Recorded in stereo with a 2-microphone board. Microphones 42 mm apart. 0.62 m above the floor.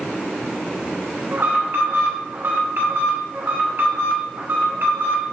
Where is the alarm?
60° right (ahead or behind), 2.5 m.